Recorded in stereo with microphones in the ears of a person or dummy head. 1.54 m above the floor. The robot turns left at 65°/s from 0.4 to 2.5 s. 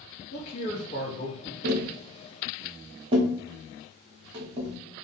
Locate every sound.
0.3 s a man speaking: 85° left, 1.2 m; by 1.5 s 10° left, 1.2 m
1.6 s tapping: 55° right (ahead or behind), 0.6 m; by 4.8 s 30° right (ahead or behind), 0.6 m